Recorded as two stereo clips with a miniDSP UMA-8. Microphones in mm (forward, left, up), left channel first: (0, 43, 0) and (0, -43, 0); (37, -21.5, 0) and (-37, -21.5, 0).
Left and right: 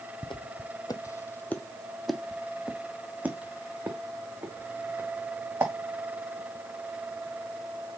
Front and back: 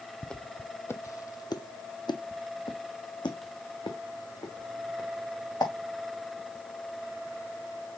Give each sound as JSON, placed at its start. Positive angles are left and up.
{"t": 0.2, "sound": "footsteps", "azimuth_deg": 80, "distance_m": 0.8}